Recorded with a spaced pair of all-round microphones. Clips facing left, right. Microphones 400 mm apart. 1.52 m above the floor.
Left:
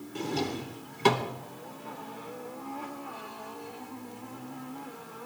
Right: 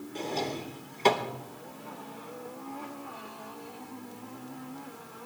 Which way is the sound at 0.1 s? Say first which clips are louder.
Left 2 dB; 25° left (ahead or behind).